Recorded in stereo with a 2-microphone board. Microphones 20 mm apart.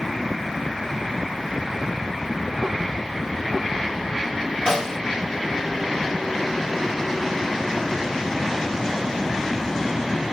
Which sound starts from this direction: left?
A snare drum, at 4.7 s.